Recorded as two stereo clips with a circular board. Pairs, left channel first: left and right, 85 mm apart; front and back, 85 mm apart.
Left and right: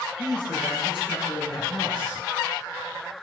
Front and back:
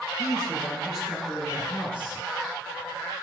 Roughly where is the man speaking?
Left.